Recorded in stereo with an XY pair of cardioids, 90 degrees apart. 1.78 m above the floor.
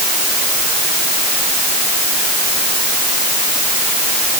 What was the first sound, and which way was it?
Only background noise.